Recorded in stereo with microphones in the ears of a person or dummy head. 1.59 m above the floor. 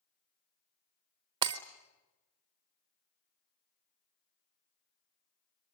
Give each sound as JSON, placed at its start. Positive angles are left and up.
{"t": 1.4, "sound": "breaking glass", "side_deg": -15, "distance_m": 0.8}